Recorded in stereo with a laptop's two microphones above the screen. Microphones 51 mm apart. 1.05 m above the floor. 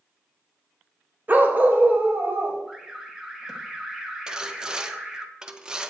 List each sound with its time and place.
1.3 s a dog barking: 35° right (ahead or behind), 1.7 m; by 2.6 s 30° right (ahead or behind), 3 m
2.7 s an alarm: 10° right (ahead or behind), 1.3 m
4.3 s sawing: 15° right (ahead or behind), 0.8 m